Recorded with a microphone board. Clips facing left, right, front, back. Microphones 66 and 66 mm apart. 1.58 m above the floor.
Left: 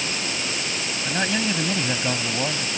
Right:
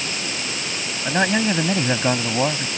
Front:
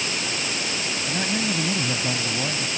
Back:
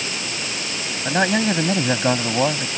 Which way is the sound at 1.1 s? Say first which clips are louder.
Right 6 dB, back 9 dB; 150° right.